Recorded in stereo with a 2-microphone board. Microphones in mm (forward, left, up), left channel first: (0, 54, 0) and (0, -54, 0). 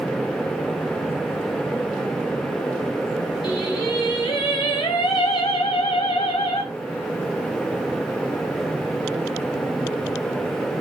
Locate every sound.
3.4 s singing: 40° left (ahead or behind), 3 m